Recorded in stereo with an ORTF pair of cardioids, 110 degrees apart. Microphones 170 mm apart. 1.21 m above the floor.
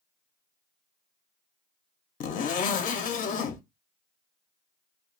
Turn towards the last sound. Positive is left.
turn(degrees=55)